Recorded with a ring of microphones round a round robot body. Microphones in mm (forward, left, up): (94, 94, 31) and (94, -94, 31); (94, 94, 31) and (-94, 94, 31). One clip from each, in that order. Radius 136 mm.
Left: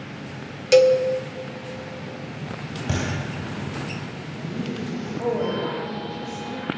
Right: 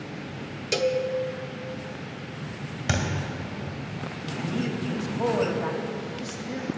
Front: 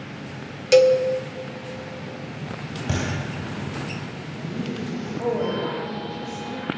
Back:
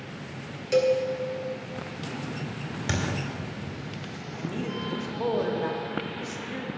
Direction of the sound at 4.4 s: 130° right.